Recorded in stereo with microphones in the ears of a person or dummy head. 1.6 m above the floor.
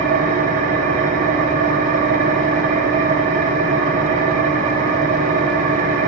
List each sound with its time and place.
0.0 s an engine running: 45° right (ahead or behind), 0.8 m